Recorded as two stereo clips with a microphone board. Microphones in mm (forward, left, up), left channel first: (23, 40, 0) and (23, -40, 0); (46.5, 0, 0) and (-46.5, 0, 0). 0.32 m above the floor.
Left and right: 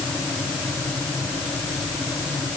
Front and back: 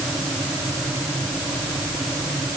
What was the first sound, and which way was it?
Only background noise.